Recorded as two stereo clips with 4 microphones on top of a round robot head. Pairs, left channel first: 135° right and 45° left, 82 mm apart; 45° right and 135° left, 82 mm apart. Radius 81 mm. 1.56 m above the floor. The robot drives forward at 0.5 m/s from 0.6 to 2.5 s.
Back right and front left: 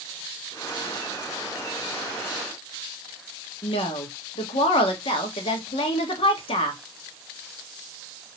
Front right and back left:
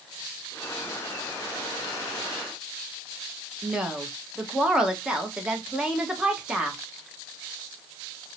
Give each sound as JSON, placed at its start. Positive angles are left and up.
{"t": 3.6, "sound": "a woman speaking", "azimuth_deg": -140, "distance_m": 1.0}